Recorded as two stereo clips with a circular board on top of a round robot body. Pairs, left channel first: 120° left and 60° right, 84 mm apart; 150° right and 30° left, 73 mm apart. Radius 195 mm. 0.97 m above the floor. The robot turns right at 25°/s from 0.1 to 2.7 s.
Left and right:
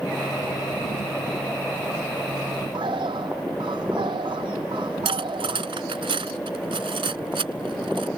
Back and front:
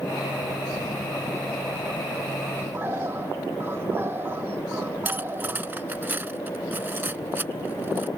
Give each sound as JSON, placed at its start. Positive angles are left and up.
{"t": 2.7, "sound": "a bird", "azimuth_deg": -30}
{"t": 5.0, "sound": "cutlery clinking", "azimuth_deg": -35}